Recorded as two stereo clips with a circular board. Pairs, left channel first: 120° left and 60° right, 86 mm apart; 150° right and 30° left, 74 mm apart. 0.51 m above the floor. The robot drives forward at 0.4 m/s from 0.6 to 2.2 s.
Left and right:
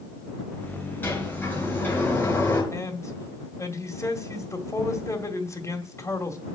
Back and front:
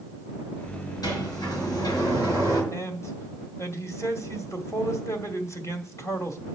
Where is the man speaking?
170° left, 1.9 m.